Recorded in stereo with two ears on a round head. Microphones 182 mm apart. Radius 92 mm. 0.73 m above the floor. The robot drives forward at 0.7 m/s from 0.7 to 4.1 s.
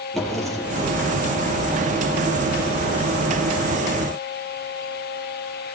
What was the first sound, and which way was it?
A drawer, centre (ahead or behind).